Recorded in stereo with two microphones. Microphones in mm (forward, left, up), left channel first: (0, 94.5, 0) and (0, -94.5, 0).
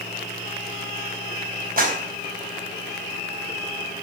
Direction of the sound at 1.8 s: 50° right (ahead or behind).